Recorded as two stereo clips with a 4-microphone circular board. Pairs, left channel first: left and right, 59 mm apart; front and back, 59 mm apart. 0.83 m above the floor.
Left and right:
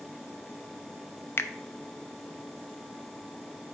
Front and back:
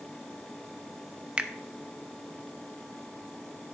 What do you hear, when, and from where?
1.4 s a finger snap: 115° left, 0.5 m